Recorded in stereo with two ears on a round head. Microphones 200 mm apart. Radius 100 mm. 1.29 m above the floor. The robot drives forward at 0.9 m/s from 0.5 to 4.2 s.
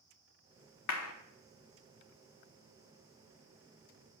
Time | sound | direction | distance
0.9 | a clap | 80° left | 0.8 m